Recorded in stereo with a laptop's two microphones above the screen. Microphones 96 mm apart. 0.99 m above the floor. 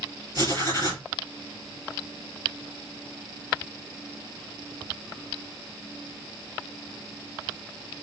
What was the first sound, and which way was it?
Writing, 35° left (ahead or behind).